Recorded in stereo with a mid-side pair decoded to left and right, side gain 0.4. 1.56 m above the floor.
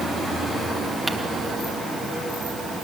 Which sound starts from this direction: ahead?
Crumpling, at 1.1 s.